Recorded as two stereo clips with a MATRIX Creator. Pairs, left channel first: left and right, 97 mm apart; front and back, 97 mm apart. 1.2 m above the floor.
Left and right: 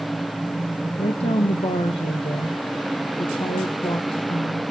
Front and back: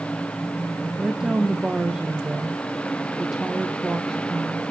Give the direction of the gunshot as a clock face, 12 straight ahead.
No gunshot in this recording.